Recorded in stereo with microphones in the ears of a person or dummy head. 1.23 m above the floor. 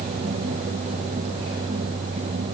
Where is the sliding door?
No sliding door in this recording.